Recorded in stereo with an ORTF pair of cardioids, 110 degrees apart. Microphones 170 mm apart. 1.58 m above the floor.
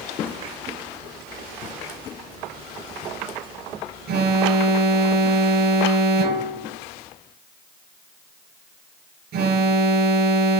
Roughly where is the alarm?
Right.